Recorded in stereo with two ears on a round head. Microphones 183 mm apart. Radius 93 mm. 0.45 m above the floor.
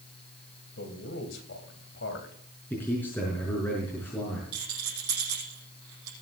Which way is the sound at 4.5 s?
75° right (ahead or behind).